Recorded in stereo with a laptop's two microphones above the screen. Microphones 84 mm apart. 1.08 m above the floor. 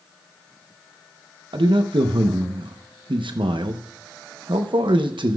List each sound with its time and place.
1.5 s a man speaking: 85° right, 0.8 m